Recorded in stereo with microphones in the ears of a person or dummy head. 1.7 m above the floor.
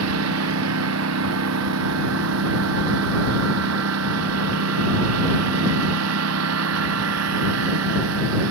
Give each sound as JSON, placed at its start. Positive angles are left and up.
{"t": 0.0, "sound": "a lawn mower", "side_deg": -75}